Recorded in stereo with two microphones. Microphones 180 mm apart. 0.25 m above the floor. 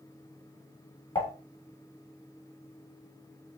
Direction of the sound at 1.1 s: 25° left (ahead or behind).